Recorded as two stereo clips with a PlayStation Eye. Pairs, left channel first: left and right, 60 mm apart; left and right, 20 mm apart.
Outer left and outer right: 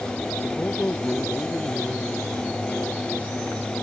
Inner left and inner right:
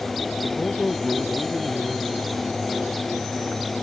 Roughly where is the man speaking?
Left.